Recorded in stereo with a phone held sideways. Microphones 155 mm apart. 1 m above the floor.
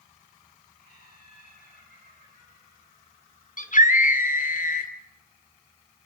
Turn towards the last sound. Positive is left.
turn(degrees=60)  # may be behind; listen again after turning